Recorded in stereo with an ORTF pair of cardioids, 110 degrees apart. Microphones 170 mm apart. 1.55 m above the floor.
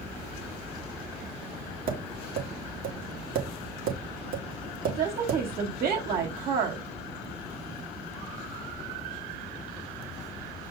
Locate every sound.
1.9 s tapping: 60° right, 3 m
4.9 s a woman speaking: 65° right, 4 m